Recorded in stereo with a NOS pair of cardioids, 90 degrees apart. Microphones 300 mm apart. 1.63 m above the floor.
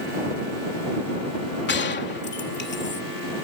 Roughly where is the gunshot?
Ahead left.